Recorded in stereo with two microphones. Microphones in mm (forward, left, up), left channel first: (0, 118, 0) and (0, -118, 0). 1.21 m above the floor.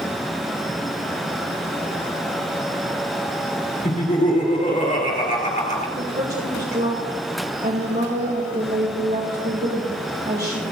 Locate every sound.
3.8 s laughter: 35° left (ahead or behind), 2.5 m
6.0 s a woman speaking: 45° right (ahead or behind), 1.9 m